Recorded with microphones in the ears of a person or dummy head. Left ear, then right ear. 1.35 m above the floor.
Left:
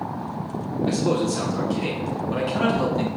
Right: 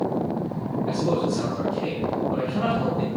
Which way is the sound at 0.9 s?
75° left (ahead or behind).